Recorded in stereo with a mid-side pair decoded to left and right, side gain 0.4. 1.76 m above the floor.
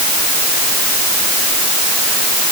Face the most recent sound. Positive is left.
No sound to turn to.